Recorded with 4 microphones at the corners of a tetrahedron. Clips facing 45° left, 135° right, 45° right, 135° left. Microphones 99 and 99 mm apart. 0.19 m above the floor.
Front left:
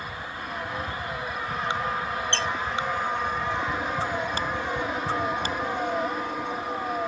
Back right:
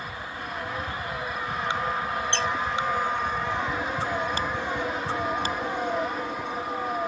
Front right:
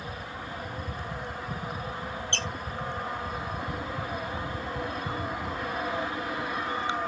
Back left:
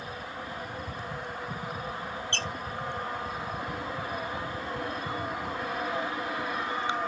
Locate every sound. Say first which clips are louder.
2.3 s a squeak: back right 3 dB, even; 160° left, 1.2 m